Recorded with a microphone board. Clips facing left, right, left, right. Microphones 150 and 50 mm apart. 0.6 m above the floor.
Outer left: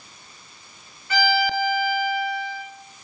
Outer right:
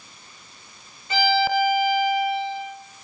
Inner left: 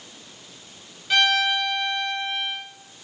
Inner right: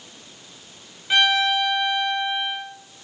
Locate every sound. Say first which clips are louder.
1.1 s a violin: outer right 2 dB, inner right 1 dB; 20° right (ahead or behind), 1.2 m